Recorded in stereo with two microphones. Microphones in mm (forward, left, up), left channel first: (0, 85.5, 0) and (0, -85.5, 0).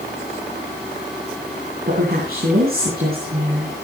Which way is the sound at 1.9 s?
60° right (ahead or behind).